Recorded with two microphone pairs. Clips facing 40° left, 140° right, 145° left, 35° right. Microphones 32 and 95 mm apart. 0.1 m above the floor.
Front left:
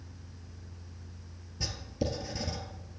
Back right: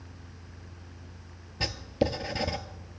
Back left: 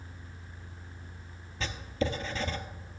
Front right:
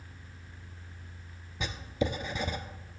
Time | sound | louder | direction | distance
1.6 | writing | back right 6 dB, even | 100° right | 0.5 m